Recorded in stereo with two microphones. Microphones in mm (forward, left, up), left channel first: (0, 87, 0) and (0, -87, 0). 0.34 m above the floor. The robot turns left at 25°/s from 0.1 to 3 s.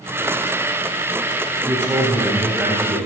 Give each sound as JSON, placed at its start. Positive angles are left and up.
{"t": 1.6, "sound": "a man speaking", "azimuth_deg": -145, "distance_m": 1.8}